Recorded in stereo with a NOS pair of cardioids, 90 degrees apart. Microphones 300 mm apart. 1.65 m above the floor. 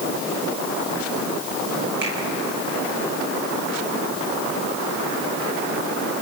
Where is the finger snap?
35° right, 9.5 m.